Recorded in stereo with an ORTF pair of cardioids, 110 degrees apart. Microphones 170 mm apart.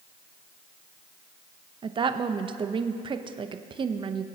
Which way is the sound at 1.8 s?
30° right.